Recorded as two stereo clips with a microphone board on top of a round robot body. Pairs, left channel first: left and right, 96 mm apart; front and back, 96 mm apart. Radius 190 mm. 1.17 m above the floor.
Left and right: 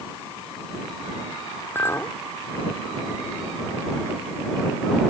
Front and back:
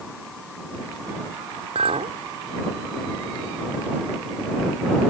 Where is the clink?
160° left.